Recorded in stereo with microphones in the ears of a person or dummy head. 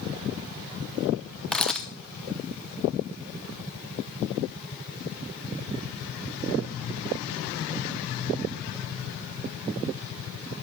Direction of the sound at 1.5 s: 5° left (ahead or behind).